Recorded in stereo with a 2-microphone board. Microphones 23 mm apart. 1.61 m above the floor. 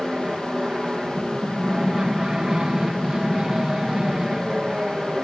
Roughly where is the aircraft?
Right.